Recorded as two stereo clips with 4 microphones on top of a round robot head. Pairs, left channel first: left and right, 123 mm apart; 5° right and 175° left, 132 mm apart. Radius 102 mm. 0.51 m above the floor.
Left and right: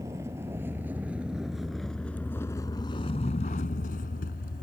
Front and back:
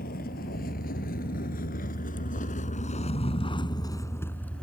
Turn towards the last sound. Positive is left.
turn(degrees=75)